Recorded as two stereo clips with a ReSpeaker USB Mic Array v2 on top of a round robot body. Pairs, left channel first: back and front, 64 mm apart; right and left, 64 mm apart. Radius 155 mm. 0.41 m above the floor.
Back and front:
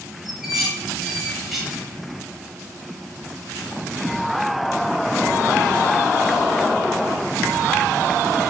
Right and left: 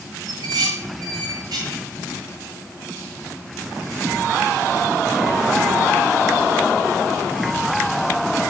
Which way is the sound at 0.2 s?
85° left.